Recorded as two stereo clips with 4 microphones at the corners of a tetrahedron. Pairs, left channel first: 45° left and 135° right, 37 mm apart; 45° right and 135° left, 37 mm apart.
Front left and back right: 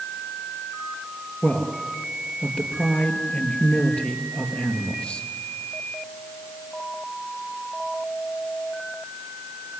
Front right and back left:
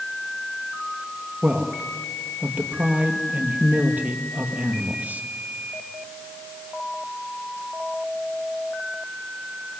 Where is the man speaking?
100° left, 3 m.